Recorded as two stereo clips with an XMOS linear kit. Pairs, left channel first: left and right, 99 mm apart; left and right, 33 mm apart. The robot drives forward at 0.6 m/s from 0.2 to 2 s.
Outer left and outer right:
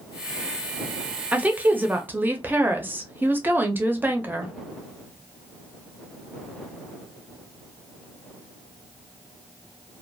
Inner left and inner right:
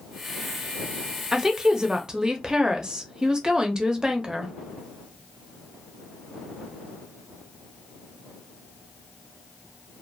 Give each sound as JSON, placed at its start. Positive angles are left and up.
{"t": 1.3, "sound": "a woman speaking", "side_deg": -15, "distance_m": 0.6}